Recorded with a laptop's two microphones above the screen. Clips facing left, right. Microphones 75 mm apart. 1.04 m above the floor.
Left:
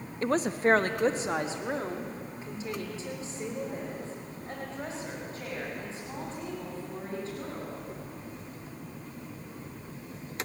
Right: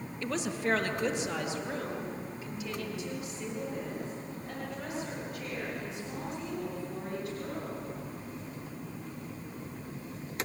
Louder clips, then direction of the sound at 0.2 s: Left 7 dB; 40° left (ahead or behind).